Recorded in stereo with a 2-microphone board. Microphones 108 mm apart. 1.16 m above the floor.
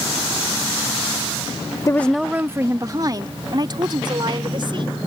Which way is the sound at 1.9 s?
30° left (ahead or behind).